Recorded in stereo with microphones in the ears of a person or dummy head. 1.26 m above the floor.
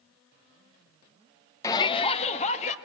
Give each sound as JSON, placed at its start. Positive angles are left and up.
{"t": 1.6, "sound": "a shout", "side_deg": 10, "distance_m": 0.7}